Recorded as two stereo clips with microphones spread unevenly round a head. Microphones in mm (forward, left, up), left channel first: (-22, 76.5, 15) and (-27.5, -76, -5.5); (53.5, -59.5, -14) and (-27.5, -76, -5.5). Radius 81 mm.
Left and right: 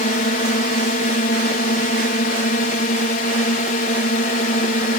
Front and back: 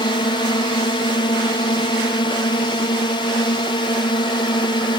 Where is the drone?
45° left.